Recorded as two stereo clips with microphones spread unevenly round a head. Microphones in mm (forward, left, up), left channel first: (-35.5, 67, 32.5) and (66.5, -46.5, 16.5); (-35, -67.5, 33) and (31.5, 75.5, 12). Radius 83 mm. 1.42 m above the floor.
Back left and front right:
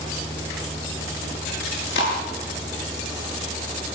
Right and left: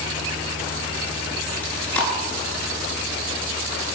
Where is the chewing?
165° left, 8.5 m.